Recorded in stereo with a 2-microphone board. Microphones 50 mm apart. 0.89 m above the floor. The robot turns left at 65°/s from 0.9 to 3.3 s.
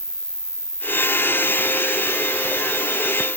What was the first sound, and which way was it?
An insect, 15° left.